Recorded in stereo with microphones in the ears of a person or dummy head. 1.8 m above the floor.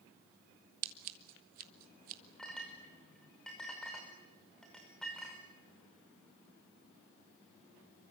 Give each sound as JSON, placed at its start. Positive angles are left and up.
{"t": 0.8, "sound": "scissors", "side_deg": -50, "distance_m": 1.6}
{"t": 2.4, "sound": "a clink", "side_deg": 0, "distance_m": 5.5}